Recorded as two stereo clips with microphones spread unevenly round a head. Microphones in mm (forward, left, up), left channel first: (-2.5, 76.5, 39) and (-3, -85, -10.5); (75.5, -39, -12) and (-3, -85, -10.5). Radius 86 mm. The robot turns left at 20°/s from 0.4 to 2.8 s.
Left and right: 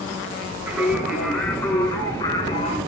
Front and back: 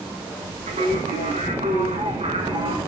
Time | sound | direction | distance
0.7 | singing | 175° right | 7 m